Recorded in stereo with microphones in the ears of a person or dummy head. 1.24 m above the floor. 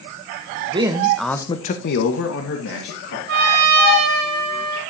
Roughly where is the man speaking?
Right.